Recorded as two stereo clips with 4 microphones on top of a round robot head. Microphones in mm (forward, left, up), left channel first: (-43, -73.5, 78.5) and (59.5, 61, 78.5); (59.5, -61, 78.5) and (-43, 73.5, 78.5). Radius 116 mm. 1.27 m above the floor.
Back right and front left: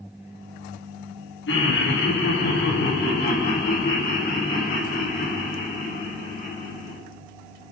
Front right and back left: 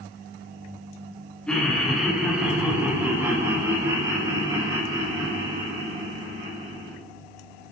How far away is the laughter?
About 3.5 m.